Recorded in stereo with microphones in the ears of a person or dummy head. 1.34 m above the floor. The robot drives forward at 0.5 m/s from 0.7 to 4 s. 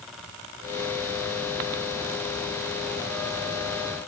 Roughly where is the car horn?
No car horn in this recording.